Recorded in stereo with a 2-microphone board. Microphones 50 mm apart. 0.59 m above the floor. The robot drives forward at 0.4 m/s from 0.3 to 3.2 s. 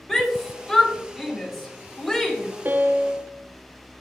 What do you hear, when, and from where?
0.1 s a shout: centre (ahead or behind), 2.5 m
2.6 s a piano: 40° right (ahead or behind), 0.6 m; by 3.3 s 35° right (ahead or behind), 0.7 m